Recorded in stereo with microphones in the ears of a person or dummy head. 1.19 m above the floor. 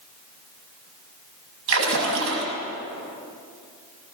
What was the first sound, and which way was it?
A splash, 85° right.